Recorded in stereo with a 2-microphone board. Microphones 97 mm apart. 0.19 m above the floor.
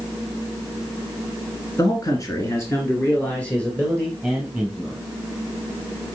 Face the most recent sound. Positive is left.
turn(degrees=5)  # may be behind; listen again after turning